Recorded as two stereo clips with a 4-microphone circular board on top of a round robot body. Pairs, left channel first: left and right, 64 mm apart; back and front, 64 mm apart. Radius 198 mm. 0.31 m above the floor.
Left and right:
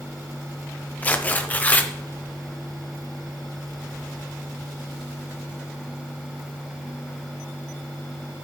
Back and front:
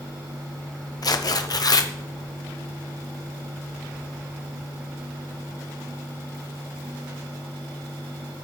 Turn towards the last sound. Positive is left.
turn(degrees=155)